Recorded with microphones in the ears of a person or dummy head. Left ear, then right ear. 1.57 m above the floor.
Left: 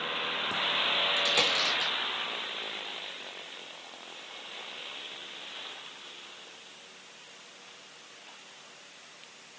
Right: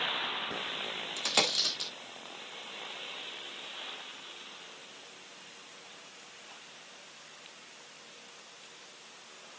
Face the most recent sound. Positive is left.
turn(degrees=-55)  # may be behind; listen again after turning